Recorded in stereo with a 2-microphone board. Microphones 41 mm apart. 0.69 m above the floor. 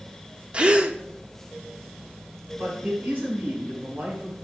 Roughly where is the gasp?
Right.